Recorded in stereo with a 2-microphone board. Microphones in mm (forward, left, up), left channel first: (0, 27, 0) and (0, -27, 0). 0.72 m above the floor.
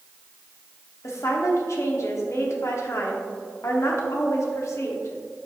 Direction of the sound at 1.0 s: 65° left (ahead or behind).